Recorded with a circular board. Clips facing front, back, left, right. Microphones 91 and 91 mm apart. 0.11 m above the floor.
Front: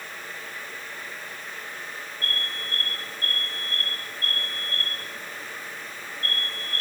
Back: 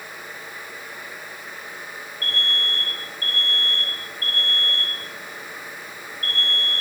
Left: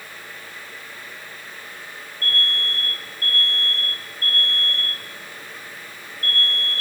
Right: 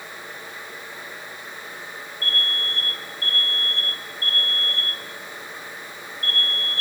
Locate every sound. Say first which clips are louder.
2.2 s an alarm: back 6 dB, left 2 dB; 145° right, 6.5 m